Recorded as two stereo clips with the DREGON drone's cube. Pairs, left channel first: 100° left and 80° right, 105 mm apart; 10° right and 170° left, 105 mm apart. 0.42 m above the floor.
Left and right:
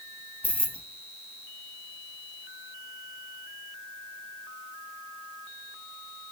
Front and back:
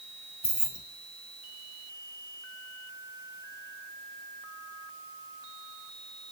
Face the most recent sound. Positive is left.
turn(degrees=-5)